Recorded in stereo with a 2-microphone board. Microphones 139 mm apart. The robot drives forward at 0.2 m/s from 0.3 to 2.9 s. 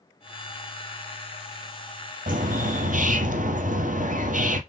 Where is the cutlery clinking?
I don't hear cutlery clinking.